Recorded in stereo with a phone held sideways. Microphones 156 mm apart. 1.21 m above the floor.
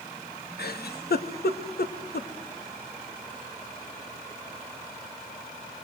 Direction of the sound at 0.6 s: 80° left.